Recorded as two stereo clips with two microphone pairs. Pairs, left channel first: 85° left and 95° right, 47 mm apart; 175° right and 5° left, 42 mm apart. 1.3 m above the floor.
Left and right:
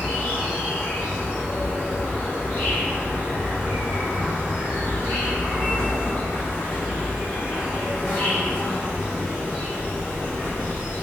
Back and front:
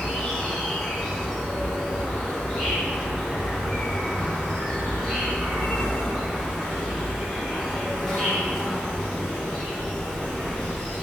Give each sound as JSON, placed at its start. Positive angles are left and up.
{"t": 0.0, "sound": "an insect", "azimuth_deg": 100, "distance_m": 1.8}